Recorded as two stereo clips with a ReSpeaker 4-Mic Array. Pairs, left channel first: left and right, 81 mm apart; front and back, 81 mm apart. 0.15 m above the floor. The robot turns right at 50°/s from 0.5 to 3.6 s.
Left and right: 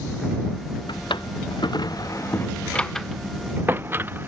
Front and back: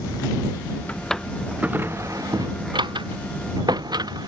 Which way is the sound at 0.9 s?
75° left.